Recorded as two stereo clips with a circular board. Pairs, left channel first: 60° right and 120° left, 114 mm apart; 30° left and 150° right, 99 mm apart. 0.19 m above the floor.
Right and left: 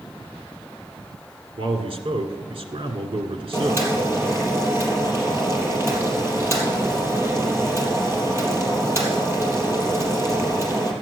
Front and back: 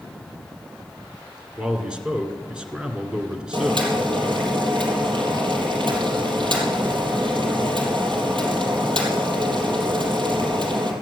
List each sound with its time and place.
1.6 s a man speaking: 130° left, 2.0 m
3.5 s boiling: 175° right, 3.5 m